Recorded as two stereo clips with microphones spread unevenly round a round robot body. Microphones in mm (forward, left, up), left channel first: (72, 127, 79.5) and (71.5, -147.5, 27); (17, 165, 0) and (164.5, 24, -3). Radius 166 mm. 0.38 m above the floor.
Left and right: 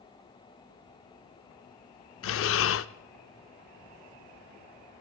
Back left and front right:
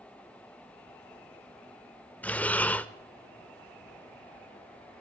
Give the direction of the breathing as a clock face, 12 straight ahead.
10 o'clock.